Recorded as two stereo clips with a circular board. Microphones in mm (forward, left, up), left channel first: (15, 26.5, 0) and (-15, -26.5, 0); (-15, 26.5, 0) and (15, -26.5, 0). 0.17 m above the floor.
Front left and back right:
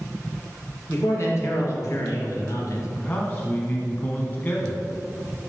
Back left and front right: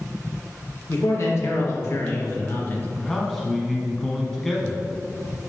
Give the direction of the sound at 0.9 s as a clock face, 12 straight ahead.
9 o'clock.